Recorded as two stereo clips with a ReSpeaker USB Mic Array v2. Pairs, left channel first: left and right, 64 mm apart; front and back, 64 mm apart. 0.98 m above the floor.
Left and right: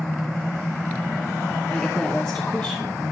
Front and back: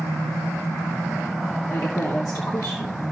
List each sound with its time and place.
1.7 s a woman speaking: 15° left, 2.5 m